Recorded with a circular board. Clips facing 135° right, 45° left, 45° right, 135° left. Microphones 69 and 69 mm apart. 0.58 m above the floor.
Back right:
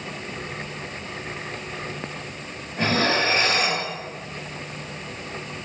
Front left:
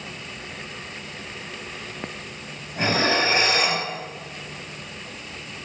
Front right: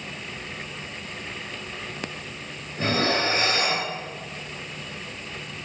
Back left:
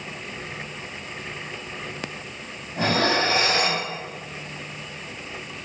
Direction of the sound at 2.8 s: 125° left.